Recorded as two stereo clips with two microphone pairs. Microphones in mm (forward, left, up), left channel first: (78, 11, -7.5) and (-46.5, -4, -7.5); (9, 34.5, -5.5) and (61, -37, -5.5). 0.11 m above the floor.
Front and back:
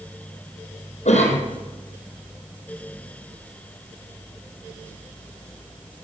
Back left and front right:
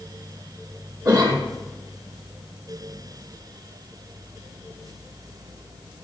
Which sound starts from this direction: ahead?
A cough, at 1.1 s.